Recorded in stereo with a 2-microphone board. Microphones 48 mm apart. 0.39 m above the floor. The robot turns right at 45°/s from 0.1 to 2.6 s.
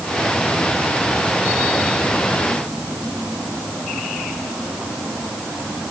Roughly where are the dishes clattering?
I don't hear dishes clattering.